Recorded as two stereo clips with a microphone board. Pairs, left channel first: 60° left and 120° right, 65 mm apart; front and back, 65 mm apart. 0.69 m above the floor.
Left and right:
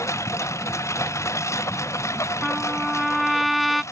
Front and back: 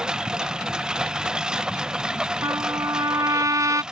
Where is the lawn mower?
100° left.